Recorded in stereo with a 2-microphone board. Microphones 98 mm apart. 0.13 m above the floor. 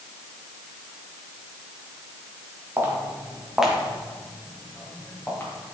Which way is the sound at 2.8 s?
25° right (ahead or behind).